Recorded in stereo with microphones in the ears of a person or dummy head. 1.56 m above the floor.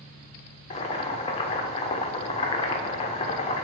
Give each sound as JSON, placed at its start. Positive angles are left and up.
{"t": 0.7, "sound": "boiling", "side_deg": 35, "distance_m": 0.9}